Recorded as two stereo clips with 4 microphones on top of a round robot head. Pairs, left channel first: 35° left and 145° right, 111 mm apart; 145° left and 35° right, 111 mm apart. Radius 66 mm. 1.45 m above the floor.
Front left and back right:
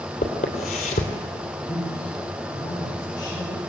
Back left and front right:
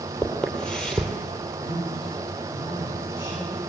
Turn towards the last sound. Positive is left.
turn(degrees=95)